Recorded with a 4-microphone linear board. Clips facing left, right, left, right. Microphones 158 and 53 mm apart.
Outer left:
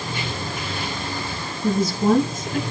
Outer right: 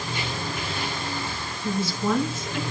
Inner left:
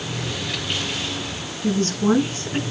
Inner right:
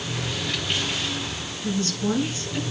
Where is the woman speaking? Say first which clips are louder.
Outer left 7 dB, inner left 6 dB; 40° left (ahead or behind), 5.5 m.